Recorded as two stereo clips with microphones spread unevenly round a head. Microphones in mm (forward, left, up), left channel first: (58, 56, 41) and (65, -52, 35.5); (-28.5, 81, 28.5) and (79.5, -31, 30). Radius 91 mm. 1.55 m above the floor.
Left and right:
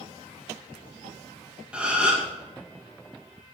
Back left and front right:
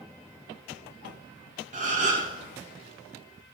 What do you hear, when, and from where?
1.7 s a gasp: 5° right, 2.5 m